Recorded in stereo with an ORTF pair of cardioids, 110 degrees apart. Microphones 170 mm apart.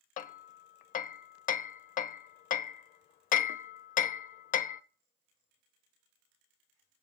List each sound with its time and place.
0.2 s hammering: 55° left, 0.7 m